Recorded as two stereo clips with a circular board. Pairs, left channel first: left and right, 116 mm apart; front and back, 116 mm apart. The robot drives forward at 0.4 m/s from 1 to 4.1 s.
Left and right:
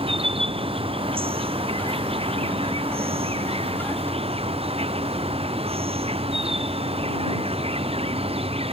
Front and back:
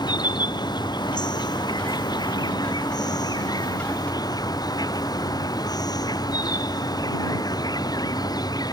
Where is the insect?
55° right.